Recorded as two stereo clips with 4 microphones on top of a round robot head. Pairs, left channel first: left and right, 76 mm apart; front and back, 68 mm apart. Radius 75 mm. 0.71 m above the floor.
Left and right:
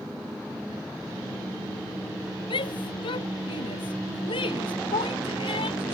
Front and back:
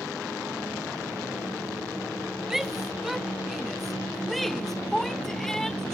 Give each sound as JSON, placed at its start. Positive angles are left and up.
{"t": 2.5, "sound": "a shout", "azimuth_deg": 90}